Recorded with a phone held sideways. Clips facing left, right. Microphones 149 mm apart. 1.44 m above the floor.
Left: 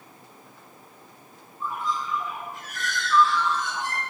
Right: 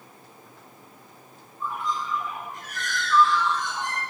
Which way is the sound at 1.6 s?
Centre (ahead or behind).